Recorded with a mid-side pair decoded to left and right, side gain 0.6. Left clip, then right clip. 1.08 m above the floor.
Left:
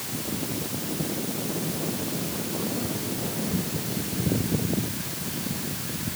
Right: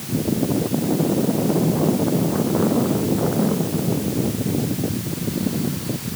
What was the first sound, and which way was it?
Only background noise.